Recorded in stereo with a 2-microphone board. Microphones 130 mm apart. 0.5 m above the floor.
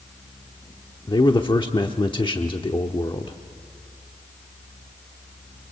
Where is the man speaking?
40° left (ahead or behind), 0.9 m.